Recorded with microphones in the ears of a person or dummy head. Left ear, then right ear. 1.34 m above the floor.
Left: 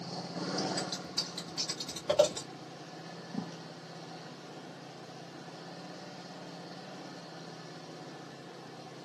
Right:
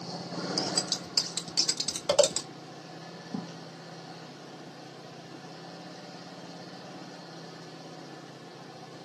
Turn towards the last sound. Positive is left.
turn(degrees=-85)